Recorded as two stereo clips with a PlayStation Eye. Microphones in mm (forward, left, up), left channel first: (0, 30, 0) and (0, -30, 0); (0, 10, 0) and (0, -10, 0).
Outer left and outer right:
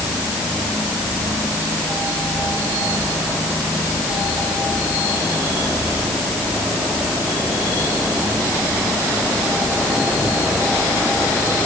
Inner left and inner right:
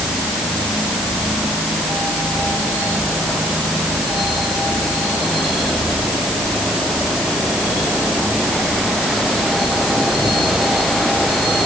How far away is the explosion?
No explosion in this recording.